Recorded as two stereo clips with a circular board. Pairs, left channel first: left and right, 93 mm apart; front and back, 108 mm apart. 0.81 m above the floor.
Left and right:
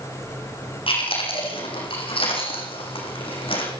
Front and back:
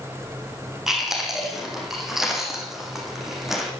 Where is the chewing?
95° left, 8.5 m.